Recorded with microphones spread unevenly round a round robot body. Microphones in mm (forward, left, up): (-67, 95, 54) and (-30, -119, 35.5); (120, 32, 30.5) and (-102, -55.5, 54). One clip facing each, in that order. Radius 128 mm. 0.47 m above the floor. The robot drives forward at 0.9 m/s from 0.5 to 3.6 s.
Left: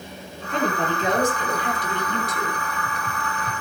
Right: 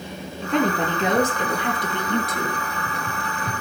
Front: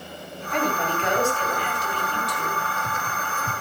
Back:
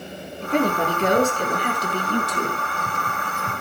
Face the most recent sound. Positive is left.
turn(degrees=-125)